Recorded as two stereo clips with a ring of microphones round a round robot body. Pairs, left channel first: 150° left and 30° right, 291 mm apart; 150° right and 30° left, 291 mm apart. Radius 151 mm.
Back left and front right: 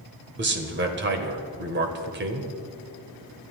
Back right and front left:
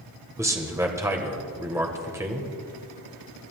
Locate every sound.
0.4 s a man speaking: 45° right, 1.6 m